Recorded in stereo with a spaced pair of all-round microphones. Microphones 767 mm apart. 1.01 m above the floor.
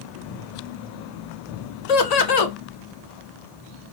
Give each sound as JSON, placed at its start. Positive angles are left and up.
{"t": 1.9, "sound": "laughter", "side_deg": 55, "distance_m": 0.8}